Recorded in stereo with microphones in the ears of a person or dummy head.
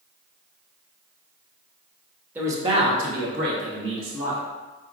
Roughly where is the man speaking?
Centre.